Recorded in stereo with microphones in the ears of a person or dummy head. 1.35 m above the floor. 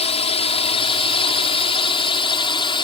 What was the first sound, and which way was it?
A drone, 30° left (ahead or behind).